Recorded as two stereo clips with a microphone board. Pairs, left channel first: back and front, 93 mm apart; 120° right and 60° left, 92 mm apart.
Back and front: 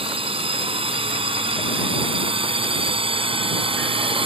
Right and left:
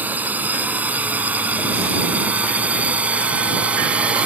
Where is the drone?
15° right.